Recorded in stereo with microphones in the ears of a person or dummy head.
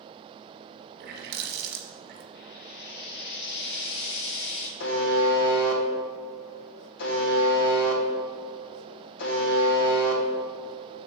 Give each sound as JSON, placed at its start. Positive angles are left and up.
{"t": 1.0, "sound": "a running tap", "side_deg": -60, "distance_m": 1.0}
{"t": 2.4, "sound": "frying", "side_deg": 60, "distance_m": 1.2}
{"t": 4.8, "sound": "a buzzer", "side_deg": 65, "distance_m": 1.0}